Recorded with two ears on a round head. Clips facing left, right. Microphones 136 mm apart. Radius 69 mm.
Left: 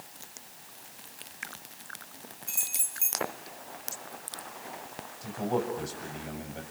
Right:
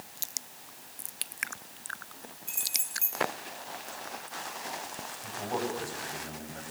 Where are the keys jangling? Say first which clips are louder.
Even; 5° left (ahead or behind), 4.5 m.